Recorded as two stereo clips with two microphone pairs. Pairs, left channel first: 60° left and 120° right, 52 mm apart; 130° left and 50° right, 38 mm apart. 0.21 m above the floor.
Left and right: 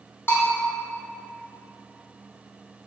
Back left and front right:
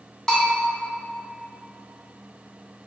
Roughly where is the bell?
Ahead left.